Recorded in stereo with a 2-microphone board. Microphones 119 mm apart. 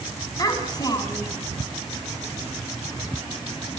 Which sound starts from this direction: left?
A child speaking, at 0.4 s.